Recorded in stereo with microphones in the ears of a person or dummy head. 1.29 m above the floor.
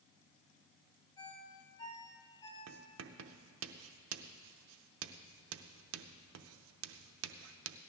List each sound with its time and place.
1.2 s a ringtone: 20° left (ahead or behind), 4 m
2.7 s writing: 75° right (ahead or behind), 0.6 m